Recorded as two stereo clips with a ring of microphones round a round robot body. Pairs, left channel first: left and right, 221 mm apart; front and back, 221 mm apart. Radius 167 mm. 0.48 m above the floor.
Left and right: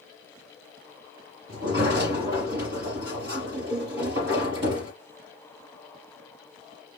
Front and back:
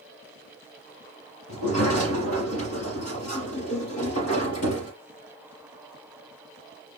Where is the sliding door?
35° right, 4 m.